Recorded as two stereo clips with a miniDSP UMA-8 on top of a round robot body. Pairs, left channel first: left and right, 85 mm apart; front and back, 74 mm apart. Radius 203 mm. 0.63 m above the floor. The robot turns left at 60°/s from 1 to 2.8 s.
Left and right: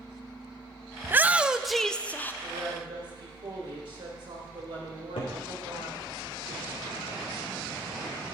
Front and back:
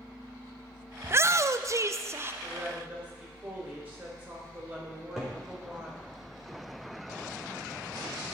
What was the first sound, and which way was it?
A shout, 140° right.